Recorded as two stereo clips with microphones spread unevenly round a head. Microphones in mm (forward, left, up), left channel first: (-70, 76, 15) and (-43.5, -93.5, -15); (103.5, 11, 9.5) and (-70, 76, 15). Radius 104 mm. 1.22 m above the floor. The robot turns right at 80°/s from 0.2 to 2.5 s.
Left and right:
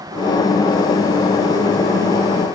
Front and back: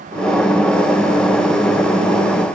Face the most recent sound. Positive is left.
No sound to turn to.